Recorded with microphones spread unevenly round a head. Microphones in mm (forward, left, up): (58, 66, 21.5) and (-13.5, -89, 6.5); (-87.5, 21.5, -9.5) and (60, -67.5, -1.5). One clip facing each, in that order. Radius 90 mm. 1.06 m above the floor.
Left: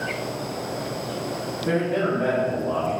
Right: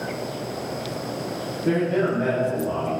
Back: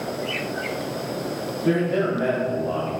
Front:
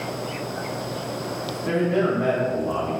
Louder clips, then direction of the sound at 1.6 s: Right 2 dB, even; straight behind.